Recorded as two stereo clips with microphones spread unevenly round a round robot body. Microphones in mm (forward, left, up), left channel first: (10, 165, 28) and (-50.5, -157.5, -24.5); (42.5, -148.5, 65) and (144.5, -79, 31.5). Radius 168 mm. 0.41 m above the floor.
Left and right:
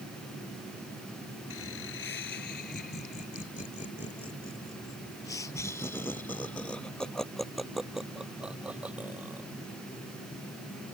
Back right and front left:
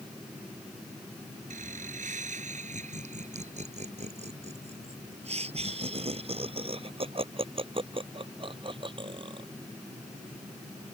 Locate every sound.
1.5 s laughter: 25° left; by 9.5 s 15° right